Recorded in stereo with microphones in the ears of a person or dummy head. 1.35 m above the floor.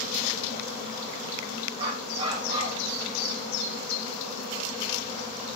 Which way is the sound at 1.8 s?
30° right (ahead or behind).